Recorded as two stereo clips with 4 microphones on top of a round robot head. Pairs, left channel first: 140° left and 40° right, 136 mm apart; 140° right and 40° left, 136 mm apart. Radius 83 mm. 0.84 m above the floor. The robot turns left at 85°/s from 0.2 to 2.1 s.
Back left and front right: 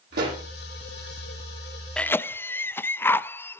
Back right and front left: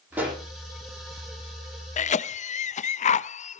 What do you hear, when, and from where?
0.1 s a pop: 35° right, 8.5 m; by 0.4 s 55° right, 8.5 m
2.0 s a cough: 140° right, 0.6 m; by 3.6 s 150° right, 0.6 m